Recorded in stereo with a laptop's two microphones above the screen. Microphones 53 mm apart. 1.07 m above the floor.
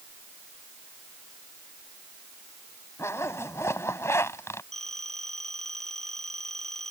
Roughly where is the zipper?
Left.